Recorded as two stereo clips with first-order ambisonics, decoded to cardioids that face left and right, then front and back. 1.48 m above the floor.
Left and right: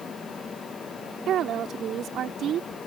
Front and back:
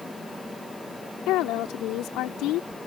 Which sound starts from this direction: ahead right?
A woman speaking, at 1.3 s.